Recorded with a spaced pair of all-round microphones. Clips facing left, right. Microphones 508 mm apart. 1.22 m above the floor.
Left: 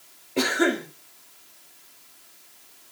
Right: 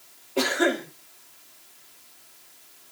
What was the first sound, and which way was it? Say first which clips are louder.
A cough: left 1 dB; 45° left (ahead or behind).